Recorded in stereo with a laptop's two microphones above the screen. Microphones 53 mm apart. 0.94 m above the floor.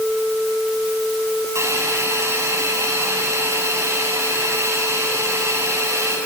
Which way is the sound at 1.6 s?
65° right (ahead or behind).